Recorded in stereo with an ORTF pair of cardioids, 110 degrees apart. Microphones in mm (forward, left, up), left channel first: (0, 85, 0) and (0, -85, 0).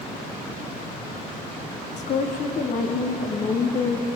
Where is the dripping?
No dripping in this recording.